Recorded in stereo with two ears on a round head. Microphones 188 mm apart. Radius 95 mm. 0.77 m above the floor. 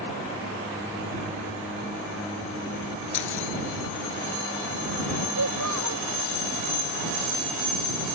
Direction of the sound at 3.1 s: 70° left (ahead or behind).